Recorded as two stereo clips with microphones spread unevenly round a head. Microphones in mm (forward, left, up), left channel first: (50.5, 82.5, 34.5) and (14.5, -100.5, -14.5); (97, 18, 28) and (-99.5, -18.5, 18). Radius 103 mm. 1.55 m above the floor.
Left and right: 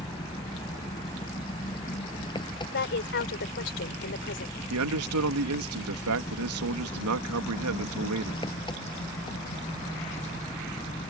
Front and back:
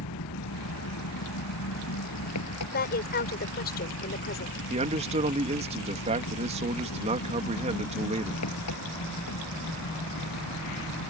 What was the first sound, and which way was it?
An engine running, 15° left.